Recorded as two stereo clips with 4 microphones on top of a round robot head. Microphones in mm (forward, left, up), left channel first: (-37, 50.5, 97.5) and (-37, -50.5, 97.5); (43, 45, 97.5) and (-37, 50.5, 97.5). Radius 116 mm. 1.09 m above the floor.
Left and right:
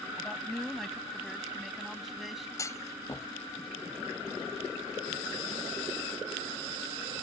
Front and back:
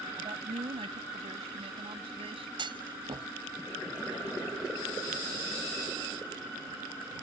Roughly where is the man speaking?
Behind.